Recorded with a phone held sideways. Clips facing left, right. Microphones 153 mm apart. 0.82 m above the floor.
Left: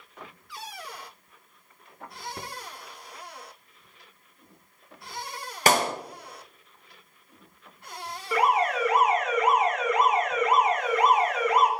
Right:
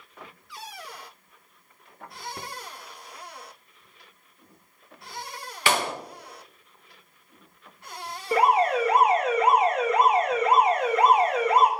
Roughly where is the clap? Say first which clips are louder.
Left 3 dB; left.